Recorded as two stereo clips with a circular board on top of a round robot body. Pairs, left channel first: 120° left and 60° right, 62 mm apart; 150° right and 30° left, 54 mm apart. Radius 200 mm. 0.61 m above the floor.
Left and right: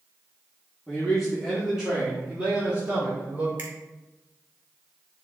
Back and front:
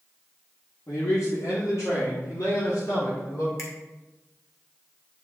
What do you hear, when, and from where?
0.9 s a man speaking: 155° right, 2 m; by 3.5 s 125° right, 3 m
3.6 s a finger snap: 120° right, 2 m